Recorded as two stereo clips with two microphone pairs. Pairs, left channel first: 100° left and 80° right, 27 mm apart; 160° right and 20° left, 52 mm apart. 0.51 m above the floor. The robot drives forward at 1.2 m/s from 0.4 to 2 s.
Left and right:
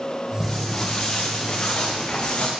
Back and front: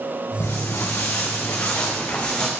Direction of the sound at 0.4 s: 170° left.